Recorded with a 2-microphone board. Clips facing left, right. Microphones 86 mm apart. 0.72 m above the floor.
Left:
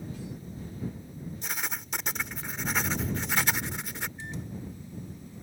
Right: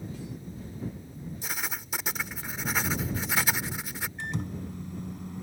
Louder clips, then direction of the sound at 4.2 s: Right 4 dB; 80° right.